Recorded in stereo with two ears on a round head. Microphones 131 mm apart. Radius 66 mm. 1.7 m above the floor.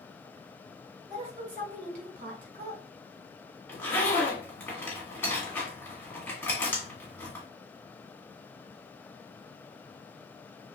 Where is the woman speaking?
45° right (ahead or behind), 2.5 m; by 2.8 s 70° right (ahead or behind), 1.6 m.